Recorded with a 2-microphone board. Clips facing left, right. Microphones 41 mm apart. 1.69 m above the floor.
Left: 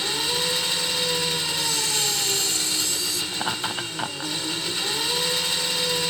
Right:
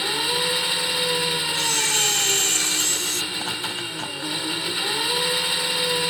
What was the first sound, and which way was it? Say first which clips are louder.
An engine running: right 2 dB; 15° right (ahead or behind).